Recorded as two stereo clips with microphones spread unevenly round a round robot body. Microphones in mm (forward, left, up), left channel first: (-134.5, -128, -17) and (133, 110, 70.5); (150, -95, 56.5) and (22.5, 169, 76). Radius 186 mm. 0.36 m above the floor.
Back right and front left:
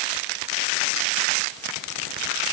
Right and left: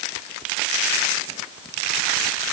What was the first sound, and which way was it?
Only background noise.